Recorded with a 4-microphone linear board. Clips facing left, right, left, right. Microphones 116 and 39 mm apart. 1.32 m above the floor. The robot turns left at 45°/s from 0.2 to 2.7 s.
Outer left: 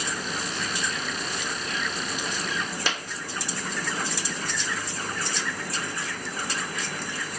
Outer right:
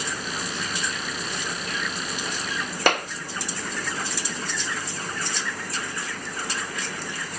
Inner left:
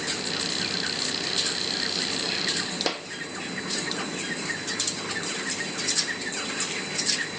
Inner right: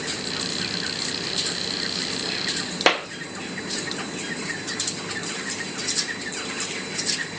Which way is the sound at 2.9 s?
60° right (ahead or behind).